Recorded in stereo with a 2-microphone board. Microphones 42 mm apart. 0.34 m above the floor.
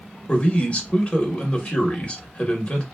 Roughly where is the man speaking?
Left.